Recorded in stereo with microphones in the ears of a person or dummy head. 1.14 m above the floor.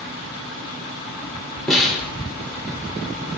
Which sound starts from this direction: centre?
A snare drum, at 1.7 s.